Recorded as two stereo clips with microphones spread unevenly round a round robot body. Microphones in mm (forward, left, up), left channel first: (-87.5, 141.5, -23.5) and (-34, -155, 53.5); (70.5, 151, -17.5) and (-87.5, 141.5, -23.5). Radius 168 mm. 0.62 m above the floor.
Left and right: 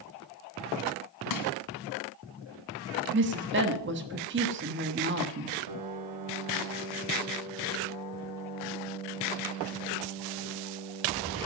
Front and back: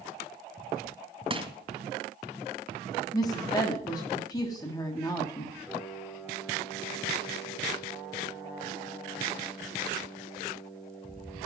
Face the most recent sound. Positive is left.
turn(degrees=-85)